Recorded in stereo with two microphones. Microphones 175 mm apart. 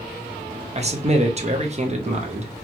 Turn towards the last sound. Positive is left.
turn(degrees=-40)  # may be behind; listen again after turning